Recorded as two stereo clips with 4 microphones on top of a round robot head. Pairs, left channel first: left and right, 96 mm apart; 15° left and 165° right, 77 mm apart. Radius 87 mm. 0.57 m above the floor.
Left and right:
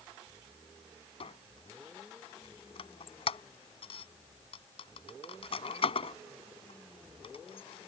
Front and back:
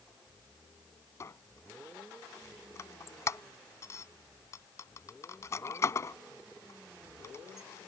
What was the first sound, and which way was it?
A squeak, 65° left.